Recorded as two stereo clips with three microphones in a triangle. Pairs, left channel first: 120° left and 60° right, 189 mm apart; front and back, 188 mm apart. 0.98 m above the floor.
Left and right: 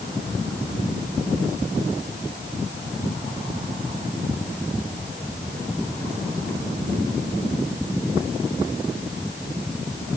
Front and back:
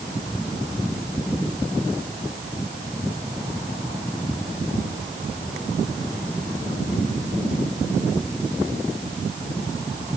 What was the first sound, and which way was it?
Only background noise.